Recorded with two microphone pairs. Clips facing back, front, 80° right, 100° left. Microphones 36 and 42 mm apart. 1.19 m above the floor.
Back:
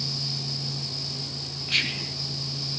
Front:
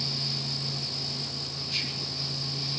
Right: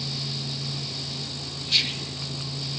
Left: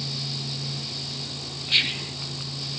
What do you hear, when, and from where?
1.7 s whispering: 170° left, 0.5 m